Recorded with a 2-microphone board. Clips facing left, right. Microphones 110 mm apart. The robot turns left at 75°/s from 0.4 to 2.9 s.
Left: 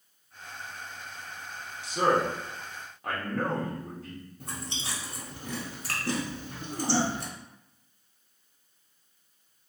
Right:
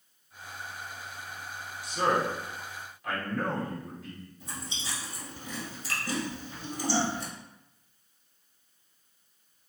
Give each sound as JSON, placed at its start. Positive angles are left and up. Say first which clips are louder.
{"t": 1.8, "sound": "a man speaking", "louder": "left 2 dB", "azimuth_deg": 140, "distance_m": 1.1}
{"t": 4.4, "sound": "chewing", "louder": "left 2 dB", "side_deg": 65, "distance_m": 0.9}